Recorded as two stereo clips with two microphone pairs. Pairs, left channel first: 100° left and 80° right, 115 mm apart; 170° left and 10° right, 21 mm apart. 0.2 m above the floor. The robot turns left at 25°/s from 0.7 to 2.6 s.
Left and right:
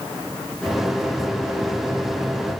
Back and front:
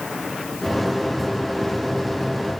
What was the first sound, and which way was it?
Only background noise.